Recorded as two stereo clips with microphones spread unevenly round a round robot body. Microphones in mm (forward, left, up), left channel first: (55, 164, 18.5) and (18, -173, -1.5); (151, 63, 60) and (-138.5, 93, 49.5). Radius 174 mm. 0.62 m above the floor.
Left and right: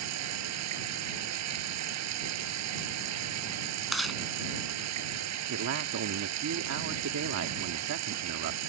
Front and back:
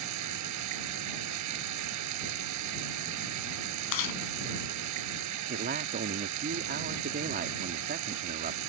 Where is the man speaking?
135° right.